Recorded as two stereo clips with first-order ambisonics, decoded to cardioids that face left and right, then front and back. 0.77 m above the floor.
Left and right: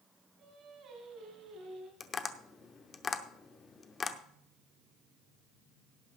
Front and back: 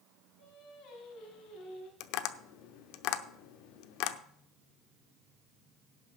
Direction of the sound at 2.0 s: 20° left.